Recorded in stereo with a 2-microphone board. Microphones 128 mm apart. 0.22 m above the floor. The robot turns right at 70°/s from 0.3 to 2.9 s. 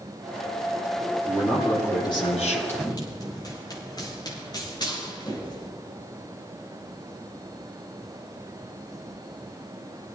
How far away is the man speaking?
About 6.5 m.